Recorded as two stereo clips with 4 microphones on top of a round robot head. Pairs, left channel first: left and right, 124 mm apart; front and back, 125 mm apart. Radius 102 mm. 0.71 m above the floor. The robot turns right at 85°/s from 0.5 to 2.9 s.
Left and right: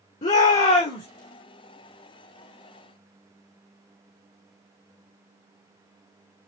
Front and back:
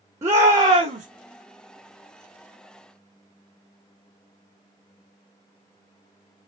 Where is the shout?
120° left, 1.5 m; by 1.1 s 165° left, 1.5 m.